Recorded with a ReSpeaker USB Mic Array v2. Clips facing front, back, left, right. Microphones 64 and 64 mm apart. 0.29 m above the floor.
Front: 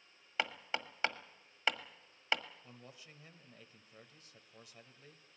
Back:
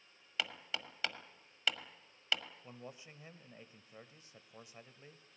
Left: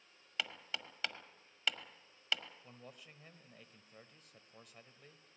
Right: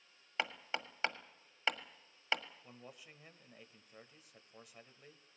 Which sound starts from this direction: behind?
A man speaking, at 2.6 s.